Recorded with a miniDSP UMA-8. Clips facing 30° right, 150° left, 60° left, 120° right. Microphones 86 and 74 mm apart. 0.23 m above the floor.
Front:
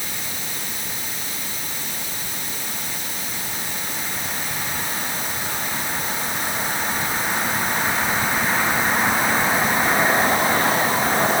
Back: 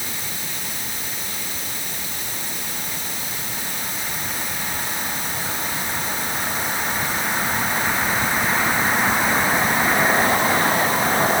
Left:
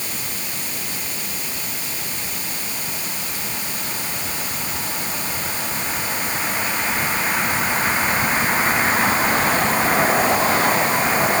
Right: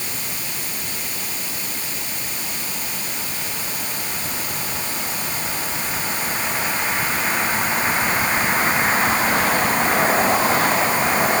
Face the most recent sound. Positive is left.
No sound to turn to.